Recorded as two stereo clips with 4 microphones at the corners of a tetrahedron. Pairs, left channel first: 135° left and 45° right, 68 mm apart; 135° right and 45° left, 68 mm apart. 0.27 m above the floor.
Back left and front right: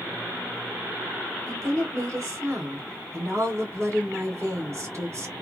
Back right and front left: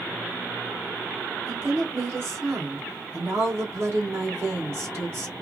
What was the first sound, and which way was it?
A woman speaking, 5° right.